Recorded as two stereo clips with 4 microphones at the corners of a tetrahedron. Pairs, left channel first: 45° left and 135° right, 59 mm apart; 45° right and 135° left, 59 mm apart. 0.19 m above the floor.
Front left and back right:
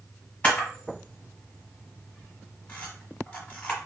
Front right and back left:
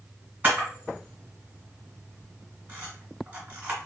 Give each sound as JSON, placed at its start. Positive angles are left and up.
{"t": 0.4, "sound": "a camera shutter", "azimuth_deg": 95, "distance_m": 1.3}